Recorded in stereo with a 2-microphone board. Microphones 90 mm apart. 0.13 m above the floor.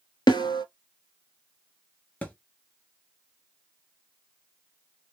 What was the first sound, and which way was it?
A snare drum, 55° left (ahead or behind).